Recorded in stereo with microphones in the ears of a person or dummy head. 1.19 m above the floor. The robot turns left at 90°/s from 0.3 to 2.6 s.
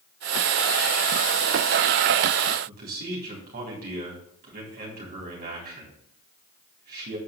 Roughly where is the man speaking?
Right.